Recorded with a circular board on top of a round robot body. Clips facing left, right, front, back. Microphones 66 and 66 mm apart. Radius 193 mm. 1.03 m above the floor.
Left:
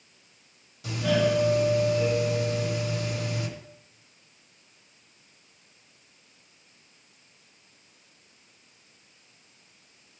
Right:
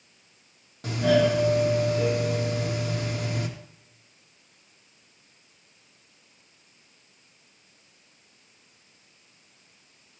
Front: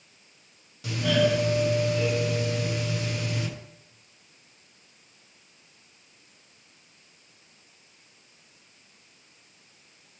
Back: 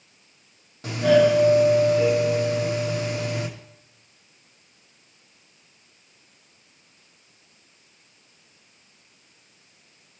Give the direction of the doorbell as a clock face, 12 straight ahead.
4 o'clock.